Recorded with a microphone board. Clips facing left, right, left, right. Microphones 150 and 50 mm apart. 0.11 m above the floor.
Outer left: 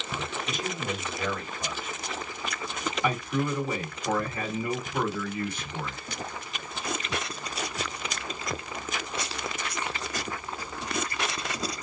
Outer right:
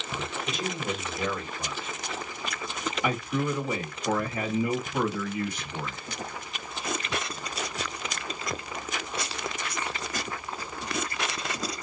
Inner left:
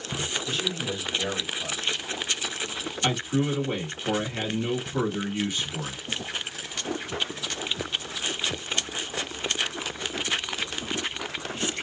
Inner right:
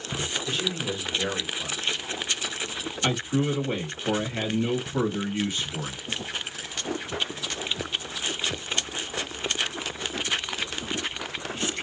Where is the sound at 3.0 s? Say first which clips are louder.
Even, even; 15° right (ahead or behind), 1.9 m.